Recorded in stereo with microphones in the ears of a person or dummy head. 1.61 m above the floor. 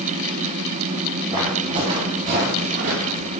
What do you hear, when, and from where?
1.3 s footsteps: 10° right (ahead or behind), 1.8 m; by 3.3 s 45° right (ahead or behind), 2 m